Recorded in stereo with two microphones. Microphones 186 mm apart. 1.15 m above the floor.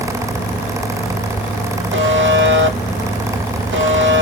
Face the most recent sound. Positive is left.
turn(degrees=-70)  # may be behind; listen again after turning